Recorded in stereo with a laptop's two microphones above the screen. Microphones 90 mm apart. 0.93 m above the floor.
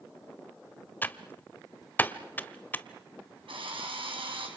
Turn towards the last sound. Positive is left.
turn(degrees=-85)